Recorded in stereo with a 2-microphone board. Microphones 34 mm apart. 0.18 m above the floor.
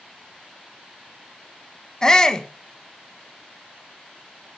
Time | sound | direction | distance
2.0 | a shout | 20° left (ahead or behind) | 1.0 m